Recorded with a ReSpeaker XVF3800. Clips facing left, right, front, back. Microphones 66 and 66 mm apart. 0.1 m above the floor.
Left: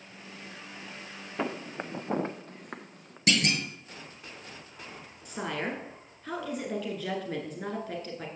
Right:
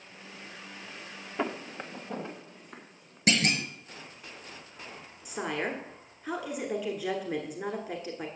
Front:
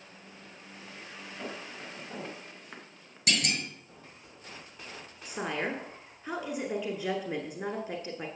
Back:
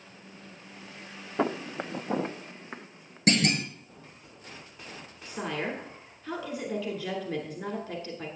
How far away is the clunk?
About 0.9 m.